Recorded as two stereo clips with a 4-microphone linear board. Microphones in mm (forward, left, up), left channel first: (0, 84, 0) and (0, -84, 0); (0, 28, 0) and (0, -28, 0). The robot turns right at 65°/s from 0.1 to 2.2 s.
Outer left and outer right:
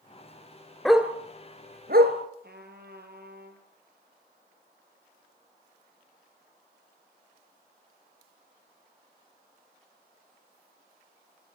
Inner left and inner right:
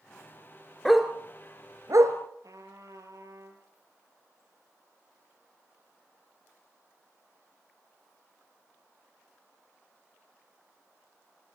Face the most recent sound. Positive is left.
turn(degrees=-75)  # may be behind; listen again after turning